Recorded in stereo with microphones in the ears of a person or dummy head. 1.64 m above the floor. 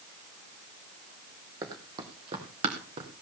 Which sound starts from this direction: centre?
Running footsteps, at 1.6 s.